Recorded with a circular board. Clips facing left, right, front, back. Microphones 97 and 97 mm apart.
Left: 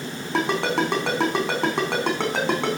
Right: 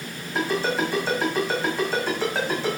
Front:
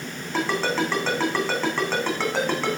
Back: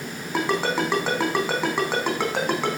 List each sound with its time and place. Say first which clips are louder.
0.3 s a ringtone: left 2 dB, back 1 dB; 105° left, 3.5 m